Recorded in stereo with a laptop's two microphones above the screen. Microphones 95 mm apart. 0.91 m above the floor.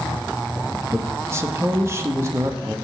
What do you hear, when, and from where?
0.9 s a man speaking: 30° right (ahead or behind), 1.4 m